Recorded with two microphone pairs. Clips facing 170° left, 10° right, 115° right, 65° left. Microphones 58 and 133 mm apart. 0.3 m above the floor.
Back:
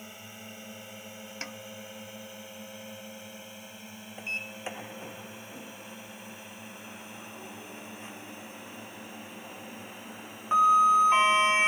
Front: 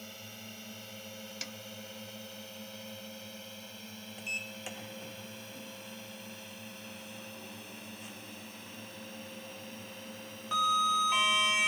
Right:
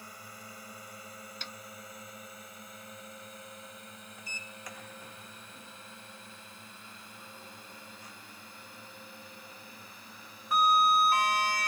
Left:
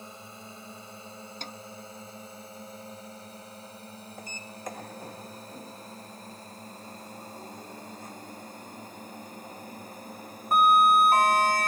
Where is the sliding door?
110° left.